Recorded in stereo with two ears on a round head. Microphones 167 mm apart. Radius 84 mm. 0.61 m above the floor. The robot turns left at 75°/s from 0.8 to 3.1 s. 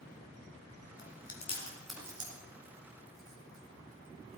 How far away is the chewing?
About 3.5 m.